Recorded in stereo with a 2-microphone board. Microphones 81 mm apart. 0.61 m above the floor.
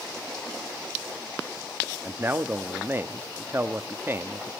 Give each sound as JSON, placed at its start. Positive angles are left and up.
{"t": 2.0, "sound": "a man speaking", "side_deg": -25, "distance_m": 0.6}